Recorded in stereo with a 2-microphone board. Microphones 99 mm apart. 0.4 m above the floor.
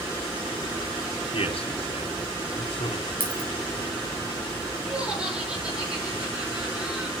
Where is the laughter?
10° right (ahead or behind), 6.5 m.